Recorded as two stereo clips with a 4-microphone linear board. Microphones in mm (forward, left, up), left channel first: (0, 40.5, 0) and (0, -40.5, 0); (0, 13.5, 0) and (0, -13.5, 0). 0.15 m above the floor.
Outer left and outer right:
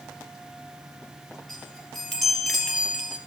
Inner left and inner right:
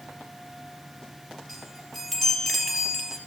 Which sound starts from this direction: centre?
A chime, at 1.5 s.